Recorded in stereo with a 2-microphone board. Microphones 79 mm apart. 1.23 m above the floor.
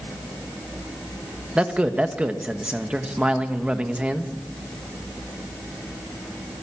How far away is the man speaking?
About 1.7 m.